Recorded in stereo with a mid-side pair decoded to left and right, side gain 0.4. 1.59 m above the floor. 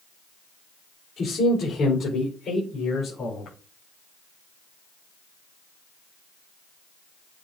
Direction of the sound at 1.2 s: 65° left.